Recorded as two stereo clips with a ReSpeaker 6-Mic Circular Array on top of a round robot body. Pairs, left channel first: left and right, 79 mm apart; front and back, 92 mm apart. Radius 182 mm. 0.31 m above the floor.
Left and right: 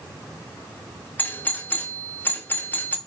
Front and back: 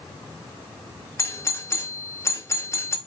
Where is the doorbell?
40° left, 1.9 m.